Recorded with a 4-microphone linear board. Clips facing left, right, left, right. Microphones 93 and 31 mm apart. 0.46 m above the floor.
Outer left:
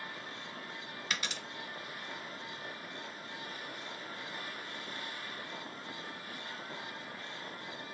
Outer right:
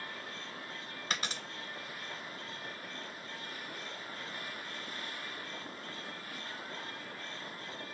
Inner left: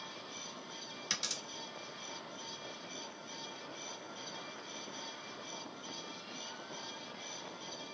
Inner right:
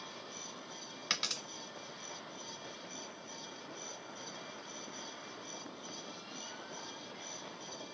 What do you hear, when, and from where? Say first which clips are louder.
1.1 s a dropped coin: outer right 2 dB, inner right 3 dB; 35° right (ahead or behind), 0.6 m